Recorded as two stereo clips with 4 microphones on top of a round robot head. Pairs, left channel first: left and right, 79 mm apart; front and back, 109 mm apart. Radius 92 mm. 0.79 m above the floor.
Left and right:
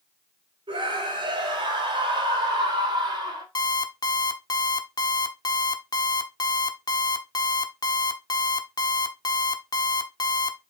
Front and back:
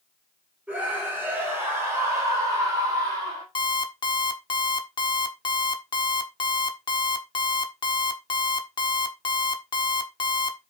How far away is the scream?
About 4 m.